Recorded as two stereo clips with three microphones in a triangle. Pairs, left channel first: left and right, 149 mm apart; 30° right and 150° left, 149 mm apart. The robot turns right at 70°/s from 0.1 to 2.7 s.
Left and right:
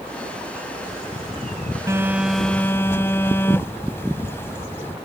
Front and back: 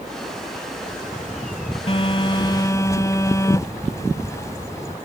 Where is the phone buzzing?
35° right; by 5.0 s 25° left.